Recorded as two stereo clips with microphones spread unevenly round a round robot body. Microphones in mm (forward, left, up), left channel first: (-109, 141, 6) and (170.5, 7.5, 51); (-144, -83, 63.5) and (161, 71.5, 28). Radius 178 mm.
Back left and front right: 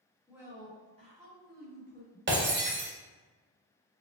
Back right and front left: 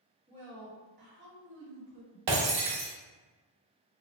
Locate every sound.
0.3 s a woman speaking: 70° left, 1.6 m; by 2.2 s 15° left, 1.7 m
2.3 s breaking glass: 35° left, 1.0 m